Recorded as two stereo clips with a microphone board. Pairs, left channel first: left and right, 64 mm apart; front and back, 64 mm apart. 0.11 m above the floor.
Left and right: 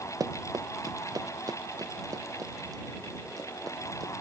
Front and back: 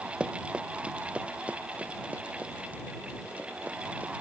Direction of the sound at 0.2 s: 110° right.